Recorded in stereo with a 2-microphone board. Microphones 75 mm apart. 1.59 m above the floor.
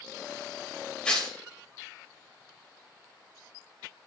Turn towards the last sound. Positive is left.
turn(degrees=15)  # may be behind; listen again after turning